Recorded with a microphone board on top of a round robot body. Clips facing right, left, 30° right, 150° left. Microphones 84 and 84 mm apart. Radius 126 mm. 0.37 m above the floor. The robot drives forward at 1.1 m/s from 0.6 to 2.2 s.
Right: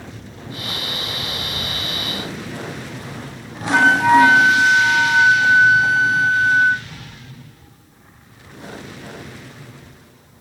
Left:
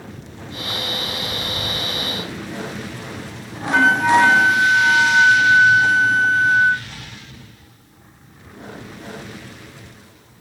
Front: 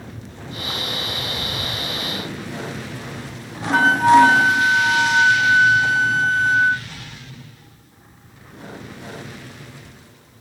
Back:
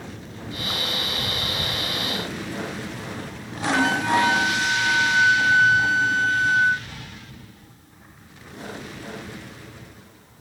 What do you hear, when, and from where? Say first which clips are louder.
3.7 s a flute: right 2 dB, front 9 dB; 5° right, 1.1 m